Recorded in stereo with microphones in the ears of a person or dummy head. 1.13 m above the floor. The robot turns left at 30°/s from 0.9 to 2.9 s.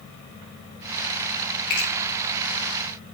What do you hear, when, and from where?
1.7 s a finger snap: 50° left (ahead or behind), 3 m; by 1.9 s 45° left (ahead or behind), 3 m